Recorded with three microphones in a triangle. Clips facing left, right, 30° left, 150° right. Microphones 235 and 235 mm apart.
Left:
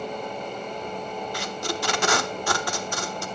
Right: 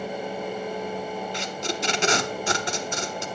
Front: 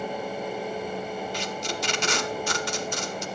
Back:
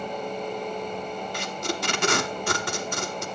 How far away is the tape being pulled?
About 0.9 m.